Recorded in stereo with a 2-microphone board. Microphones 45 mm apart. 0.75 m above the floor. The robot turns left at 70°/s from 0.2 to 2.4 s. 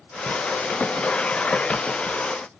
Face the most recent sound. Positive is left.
No sound to turn to.